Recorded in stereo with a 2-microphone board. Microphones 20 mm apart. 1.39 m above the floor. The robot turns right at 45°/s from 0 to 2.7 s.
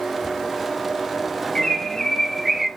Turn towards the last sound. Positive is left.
turn(degrees=-175)